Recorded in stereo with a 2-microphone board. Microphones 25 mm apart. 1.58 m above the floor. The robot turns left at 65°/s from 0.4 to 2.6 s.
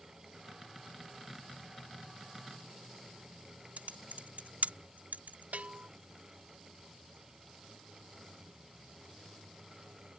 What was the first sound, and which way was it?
Typing on a keyboard, 85° right.